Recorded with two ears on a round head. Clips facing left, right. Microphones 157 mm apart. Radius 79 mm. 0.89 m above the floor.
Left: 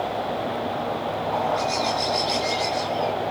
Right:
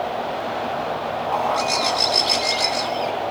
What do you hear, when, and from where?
1.3 s a bird: 65° right (ahead or behind), 1.1 m